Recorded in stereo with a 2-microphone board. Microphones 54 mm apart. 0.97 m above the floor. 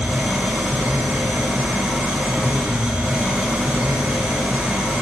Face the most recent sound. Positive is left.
turn(degrees=-15)  # may be behind; listen again after turning